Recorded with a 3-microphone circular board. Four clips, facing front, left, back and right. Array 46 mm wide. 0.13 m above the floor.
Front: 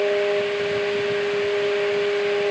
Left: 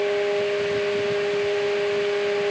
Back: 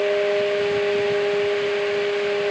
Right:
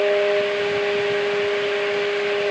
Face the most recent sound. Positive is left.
No sound to turn to.